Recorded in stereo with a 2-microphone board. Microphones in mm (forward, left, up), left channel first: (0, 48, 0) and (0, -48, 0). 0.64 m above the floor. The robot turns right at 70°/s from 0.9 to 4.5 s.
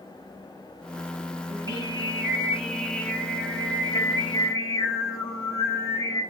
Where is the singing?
85° right, 1.2 m; by 6.2 s 125° left, 1.2 m.